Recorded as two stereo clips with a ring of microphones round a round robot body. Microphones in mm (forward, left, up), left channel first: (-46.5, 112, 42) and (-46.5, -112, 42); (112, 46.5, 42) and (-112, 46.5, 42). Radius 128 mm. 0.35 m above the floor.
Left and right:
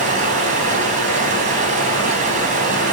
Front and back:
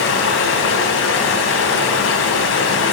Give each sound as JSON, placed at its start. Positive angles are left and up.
{"t": 0.0, "sound": "running water", "azimuth_deg": -30, "distance_m": 3.0}